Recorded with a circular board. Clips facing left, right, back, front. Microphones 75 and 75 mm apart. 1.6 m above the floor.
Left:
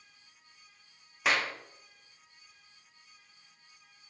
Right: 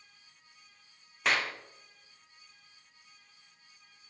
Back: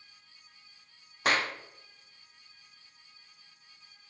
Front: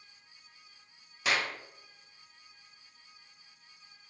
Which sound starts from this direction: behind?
A clap, at 1.2 s.